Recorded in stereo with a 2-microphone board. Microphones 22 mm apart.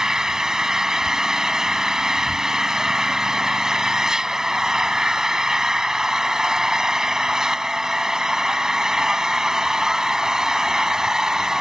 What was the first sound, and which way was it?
An engine running, 30° right (ahead or behind).